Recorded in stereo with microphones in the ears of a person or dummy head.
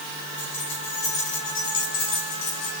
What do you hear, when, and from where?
0.4 s keys jangling: 35° left (ahead or behind), 4.5 m; by 2.7 s 70° left (ahead or behind), 4 m